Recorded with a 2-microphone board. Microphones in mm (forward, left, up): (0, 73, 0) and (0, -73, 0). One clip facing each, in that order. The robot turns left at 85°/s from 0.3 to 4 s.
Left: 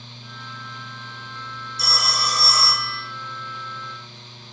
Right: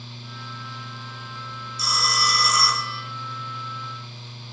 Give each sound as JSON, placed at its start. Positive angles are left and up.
{"t": 1.8, "sound": "a phone ringing", "azimuth_deg": 100, "distance_m": 1.4}